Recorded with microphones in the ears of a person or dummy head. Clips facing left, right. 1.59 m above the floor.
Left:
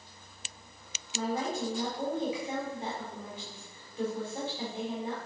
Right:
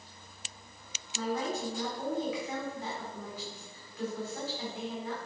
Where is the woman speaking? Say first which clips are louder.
Left 1 dB; 20° left (ahead or behind), 4 m.